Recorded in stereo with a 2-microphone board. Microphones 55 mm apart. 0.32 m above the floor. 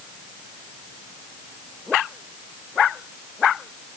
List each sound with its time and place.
Only background noise.